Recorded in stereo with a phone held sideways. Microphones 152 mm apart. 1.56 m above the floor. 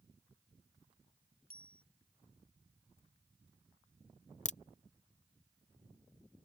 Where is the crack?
55° left (ahead or behind).